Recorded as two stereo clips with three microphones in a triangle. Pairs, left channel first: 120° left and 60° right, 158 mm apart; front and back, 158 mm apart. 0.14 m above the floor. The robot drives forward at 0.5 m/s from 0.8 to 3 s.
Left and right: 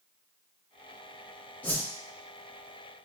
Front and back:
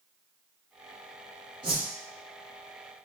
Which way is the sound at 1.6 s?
170° right.